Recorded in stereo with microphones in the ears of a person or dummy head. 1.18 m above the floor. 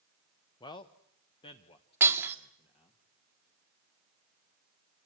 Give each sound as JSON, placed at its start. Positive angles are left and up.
{"t": 0.6, "sound": "a man speaking", "side_deg": 25, "distance_m": 0.7}
{"t": 2.0, "sound": "breaking glass", "side_deg": -15, "distance_m": 1.6}